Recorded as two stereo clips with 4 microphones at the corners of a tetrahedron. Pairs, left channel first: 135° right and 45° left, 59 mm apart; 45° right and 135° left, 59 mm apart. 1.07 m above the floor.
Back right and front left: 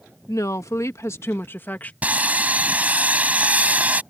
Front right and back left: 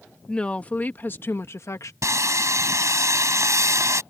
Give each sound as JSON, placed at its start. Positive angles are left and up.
{"t": 0.3, "sound": "a woman speaking", "azimuth_deg": -120}
{"t": 2.0, "sound": "sawing", "azimuth_deg": 110}